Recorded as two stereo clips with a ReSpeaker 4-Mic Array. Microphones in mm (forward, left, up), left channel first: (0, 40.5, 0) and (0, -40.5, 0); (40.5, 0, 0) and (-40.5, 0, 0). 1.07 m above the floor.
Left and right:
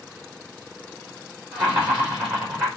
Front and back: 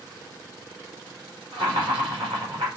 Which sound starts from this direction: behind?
Laughter, at 1.5 s.